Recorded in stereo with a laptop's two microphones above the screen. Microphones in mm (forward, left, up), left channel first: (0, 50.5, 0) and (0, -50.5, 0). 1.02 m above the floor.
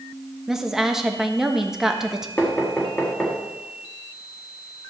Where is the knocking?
15° left (ahead or behind), 1.3 m.